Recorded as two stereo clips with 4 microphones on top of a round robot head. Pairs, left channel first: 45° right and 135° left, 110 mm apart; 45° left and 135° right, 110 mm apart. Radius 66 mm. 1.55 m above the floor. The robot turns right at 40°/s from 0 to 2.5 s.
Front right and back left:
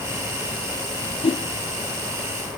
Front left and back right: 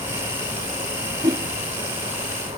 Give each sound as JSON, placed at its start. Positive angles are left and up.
{"t": 1.2, "sound": "a whoosh", "azimuth_deg": -90, "distance_m": 0.8}